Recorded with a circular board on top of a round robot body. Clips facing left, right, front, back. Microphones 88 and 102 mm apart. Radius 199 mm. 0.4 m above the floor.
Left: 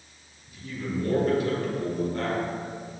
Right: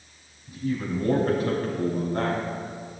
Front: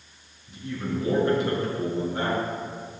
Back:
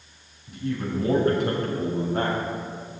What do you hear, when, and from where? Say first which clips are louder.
0.5 s a man speaking: right 5 dB, back 3 dB; 140° right, 4.5 m